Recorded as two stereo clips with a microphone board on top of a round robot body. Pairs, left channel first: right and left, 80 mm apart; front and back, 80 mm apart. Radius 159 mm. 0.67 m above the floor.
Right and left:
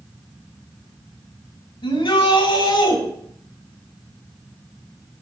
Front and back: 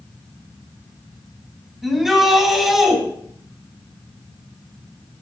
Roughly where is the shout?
Right.